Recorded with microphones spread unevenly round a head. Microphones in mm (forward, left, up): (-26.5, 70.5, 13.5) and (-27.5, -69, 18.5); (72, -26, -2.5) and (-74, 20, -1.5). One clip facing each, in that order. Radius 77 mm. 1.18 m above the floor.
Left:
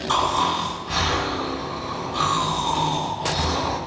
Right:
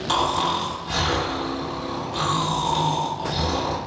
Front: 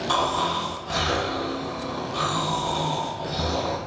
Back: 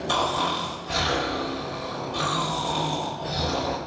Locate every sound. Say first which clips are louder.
0.1 s snoring: left 1 dB, even; 120° right, 1.2 m